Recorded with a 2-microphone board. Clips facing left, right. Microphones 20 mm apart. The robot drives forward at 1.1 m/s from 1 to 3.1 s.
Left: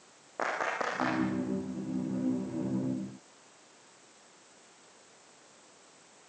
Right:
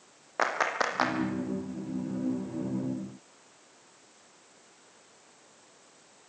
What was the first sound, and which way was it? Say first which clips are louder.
A clap: right 4 dB; 55° right (ahead or behind).